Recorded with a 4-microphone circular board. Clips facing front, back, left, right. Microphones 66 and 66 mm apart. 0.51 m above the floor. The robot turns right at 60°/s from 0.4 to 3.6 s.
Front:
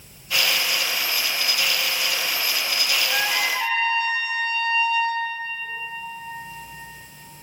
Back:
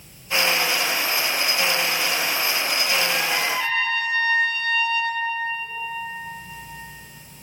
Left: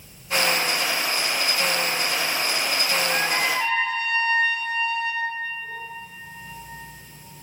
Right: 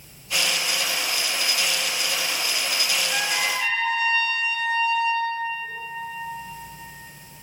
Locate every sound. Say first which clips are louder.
3.1 s a trumpet: even, left 2 dB; 35° left, 1.0 m; by 5.3 s 65° left, 1.0 m